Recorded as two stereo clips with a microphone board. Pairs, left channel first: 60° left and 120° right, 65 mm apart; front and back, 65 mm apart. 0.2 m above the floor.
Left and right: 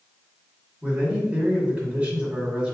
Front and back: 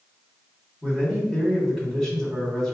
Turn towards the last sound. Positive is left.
turn(degrees=-70)